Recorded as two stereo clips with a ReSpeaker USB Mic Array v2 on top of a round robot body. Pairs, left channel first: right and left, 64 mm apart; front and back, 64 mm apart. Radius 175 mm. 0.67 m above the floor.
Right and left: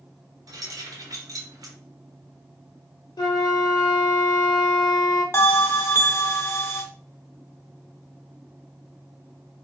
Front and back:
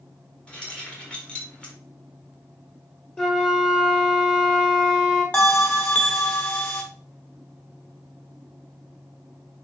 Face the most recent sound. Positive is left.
turn(degrees=-60)